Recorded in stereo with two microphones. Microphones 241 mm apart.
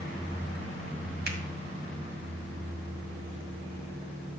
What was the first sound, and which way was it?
A finger snap, 45° right (ahead or behind).